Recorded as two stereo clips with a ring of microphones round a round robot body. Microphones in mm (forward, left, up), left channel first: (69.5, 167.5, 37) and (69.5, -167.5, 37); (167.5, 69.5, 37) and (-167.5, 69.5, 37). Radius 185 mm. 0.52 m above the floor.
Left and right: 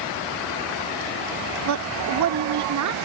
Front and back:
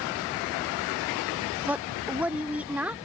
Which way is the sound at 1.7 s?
95° right.